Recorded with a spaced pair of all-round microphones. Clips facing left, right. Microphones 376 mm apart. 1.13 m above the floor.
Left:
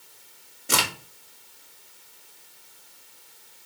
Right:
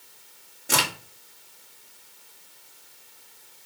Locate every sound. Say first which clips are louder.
0.7 s a crack: even; 5° left (ahead or behind), 2 m